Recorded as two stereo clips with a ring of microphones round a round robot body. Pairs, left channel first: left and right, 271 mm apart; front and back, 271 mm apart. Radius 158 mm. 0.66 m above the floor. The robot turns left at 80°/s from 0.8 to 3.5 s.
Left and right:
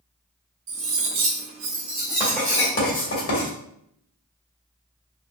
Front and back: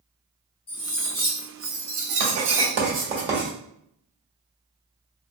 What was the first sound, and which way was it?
Cutlery clinking, 75° right.